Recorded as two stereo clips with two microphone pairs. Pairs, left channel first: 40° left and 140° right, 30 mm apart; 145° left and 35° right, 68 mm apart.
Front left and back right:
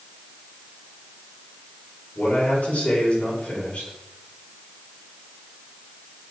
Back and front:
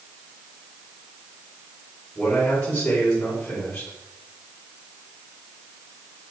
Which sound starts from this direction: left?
A man speaking, at 2.1 s.